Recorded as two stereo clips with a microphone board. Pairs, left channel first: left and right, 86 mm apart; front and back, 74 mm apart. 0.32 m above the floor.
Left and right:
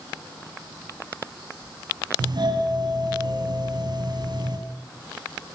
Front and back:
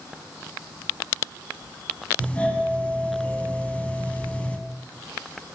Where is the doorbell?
70° right, 4 m.